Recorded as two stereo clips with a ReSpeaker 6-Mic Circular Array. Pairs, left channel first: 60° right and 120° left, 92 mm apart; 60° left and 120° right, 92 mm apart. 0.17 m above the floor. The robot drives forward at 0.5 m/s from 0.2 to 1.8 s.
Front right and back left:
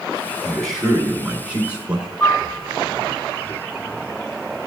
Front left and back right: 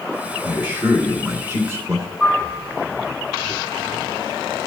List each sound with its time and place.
0.4 s a man speaking: 145° right, 1.1 m; by 2.1 s 165° right, 1.5 m
2.2 s a piano: 20° right, 1.1 m